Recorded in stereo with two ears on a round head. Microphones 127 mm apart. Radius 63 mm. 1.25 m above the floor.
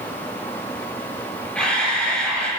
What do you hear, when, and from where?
1.6 s a camera shutter: 10° left (ahead or behind), 5 m